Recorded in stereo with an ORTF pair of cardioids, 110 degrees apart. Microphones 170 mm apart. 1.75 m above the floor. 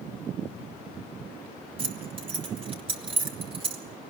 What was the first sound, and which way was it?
Keys jangling, 35° right.